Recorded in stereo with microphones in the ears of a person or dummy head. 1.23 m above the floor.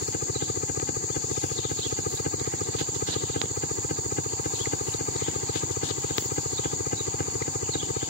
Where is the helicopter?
45° left (ahead or behind).